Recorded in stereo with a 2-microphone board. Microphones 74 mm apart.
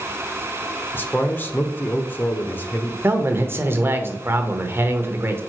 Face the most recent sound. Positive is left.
turn(degrees=-35)  # may be behind; listen again after turning